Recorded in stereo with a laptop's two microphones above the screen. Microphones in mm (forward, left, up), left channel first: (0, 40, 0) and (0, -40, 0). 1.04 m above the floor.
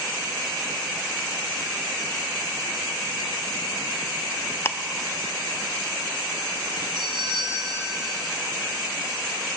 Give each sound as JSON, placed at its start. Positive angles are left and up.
{"t": 4.7, "sound": "ticking", "side_deg": 30, "distance_m": 0.5}
{"t": 7.0, "sound": "a doorbell", "side_deg": -70, "distance_m": 2.0}